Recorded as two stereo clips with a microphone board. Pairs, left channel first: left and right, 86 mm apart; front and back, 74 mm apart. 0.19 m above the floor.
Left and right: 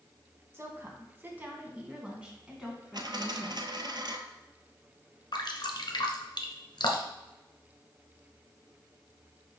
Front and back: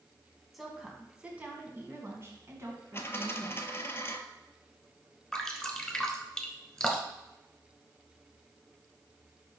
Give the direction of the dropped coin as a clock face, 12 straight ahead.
2 o'clock.